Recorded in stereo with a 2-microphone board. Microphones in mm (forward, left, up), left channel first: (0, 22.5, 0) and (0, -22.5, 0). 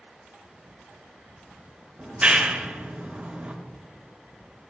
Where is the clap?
25° right (ahead or behind), 1.9 m.